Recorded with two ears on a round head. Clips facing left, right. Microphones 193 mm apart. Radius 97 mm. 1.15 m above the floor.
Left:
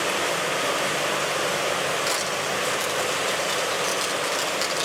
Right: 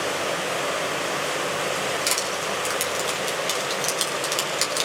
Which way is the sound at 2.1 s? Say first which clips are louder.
Left 1 dB; 45° right (ahead or behind).